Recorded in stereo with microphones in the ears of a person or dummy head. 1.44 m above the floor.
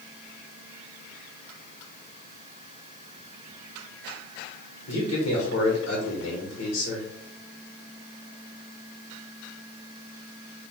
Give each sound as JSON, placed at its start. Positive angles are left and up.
{"t": 4.9, "sound": "a man speaking", "side_deg": 60, "distance_m": 1.5}